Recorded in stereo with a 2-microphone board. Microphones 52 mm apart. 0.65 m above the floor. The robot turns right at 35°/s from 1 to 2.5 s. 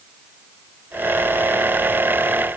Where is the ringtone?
No ringtone in this recording.